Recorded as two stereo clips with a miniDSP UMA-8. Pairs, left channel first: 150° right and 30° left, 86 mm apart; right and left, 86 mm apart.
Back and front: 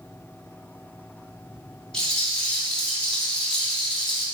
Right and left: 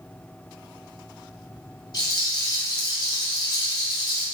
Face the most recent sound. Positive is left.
turn(degrees=-75)